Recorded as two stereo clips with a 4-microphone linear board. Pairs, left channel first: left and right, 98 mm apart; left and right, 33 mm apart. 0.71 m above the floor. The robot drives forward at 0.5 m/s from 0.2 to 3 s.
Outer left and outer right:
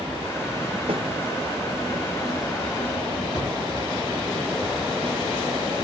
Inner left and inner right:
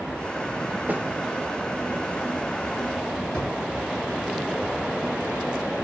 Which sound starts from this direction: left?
A drawer, at 3.3 s.